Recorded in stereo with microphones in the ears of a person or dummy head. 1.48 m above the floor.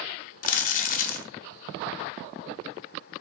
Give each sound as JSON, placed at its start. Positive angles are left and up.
{"t": 0.4, "sound": "crumpling", "side_deg": 45, "distance_m": 0.5}